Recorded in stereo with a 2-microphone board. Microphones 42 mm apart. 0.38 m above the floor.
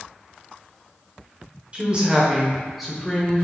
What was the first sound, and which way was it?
A woman speaking, 30° right (ahead or behind).